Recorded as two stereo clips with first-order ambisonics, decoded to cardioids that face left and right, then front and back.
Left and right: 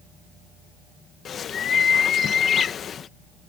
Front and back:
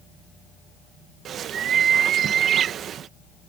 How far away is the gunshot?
I don't hear a gunshot.